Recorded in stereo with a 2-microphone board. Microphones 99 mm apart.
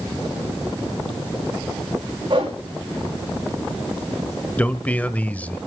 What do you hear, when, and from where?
2.3 s a whoosh: 50° right (ahead or behind), 5.5 m
4.6 s a man speaking: 15° left (ahead or behind), 0.9 m